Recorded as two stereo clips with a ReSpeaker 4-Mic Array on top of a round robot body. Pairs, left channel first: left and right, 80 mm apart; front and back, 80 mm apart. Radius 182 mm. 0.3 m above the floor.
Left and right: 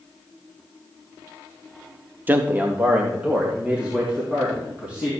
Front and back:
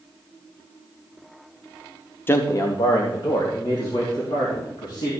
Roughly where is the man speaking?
Ahead right.